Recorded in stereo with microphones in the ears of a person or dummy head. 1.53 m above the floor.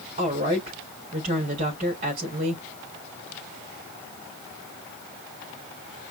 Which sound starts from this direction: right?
A woman speaking, at 0.2 s.